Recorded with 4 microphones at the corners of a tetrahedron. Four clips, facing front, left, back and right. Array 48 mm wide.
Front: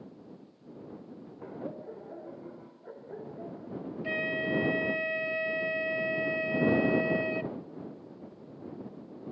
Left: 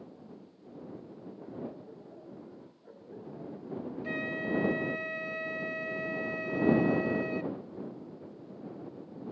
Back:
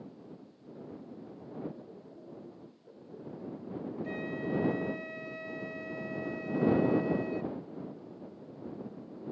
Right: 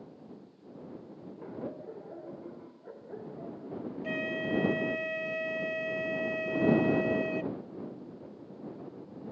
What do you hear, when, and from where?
1.4 s laughter: 30° right
4.0 s a flute: 20° right